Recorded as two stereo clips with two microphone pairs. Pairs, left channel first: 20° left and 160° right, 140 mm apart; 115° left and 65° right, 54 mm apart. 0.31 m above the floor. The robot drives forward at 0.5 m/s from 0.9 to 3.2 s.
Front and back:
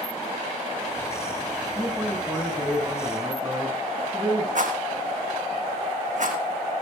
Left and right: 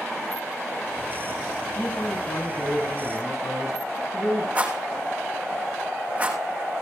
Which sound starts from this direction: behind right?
A rattle, at 4.5 s.